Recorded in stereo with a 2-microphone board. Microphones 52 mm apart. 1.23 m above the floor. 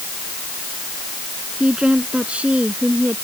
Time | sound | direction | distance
1.6 | a woman speaking | 20° right (ahead or behind) | ?